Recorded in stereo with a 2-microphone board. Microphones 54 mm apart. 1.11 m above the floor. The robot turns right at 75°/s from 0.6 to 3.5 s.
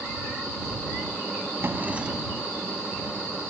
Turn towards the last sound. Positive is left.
turn(degrees=90)